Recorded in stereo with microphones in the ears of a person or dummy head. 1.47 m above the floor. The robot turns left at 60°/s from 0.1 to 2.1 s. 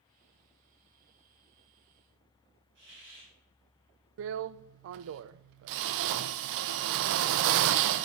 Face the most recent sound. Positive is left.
turn(degrees=-70)  # may be behind; listen again after turning